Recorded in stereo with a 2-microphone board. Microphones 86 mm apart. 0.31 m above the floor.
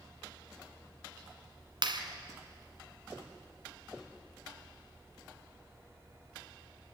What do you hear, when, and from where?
1.8 s a clap: 60° right (ahead or behind), 2.5 m